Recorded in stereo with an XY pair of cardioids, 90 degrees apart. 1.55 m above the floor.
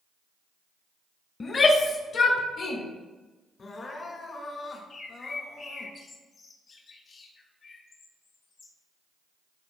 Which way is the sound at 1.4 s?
50° left.